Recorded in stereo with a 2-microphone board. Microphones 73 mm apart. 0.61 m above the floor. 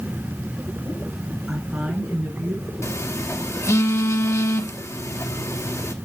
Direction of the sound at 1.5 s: 10° right (ahead or behind).